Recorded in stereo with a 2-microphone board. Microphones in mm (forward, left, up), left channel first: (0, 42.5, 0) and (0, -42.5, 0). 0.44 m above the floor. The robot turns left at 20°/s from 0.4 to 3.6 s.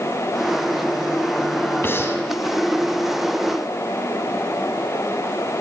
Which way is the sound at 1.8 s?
25° left (ahead or behind).